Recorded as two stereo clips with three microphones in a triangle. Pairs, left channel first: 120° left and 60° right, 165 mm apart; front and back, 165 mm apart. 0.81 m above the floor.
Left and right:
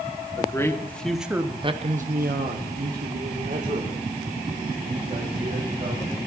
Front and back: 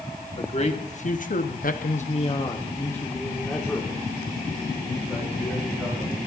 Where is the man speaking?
50° left, 1.7 m; by 6.1 s 95° right, 4.5 m.